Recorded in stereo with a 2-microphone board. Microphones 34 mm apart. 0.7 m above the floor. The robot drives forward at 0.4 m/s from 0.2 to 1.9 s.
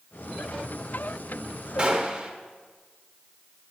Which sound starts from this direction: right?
A gunshot, at 1.8 s.